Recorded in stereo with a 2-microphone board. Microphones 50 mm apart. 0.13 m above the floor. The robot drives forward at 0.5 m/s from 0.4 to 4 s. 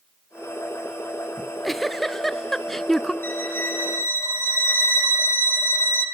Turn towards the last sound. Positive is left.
turn(degrees=50)  # may be behind; listen again after turning